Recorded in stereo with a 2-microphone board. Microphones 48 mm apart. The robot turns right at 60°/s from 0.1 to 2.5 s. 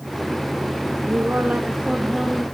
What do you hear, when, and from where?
1.1 s a woman speaking: 75° right, 2.5 m; by 2.5 s 10° left, 2.5 m